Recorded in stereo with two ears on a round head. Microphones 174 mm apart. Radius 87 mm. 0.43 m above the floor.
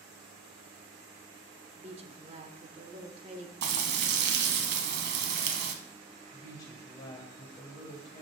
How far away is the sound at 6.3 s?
About 2 m.